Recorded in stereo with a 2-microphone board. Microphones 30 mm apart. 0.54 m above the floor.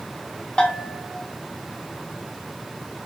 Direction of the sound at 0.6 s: 30° left (ahead or behind).